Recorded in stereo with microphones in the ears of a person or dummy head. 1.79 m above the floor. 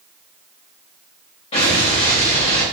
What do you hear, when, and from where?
1.5 s an explosion: 35° left (ahead or behind), 1.3 m